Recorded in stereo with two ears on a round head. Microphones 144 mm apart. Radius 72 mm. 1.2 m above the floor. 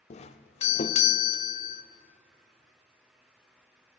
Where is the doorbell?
40° left (ahead or behind), 0.5 m.